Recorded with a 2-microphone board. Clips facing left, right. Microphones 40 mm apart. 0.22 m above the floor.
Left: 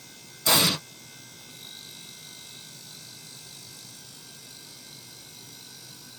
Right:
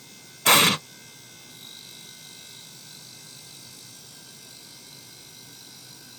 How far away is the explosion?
About 0.6 m.